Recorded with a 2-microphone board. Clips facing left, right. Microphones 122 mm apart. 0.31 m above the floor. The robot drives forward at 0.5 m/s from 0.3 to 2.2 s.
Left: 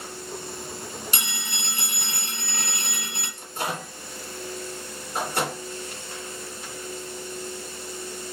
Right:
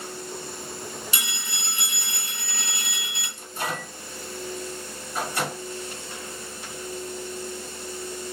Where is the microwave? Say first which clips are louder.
Even; 60° left (ahead or behind), 3 m.